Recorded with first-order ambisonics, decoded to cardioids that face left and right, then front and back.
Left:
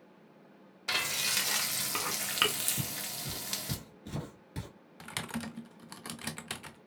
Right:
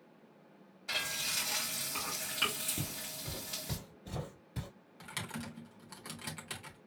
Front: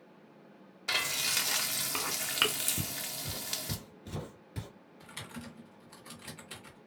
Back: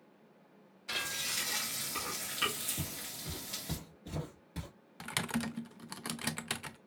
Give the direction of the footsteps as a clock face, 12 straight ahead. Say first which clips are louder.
Left 3 dB, front 4 dB; 12 o'clock.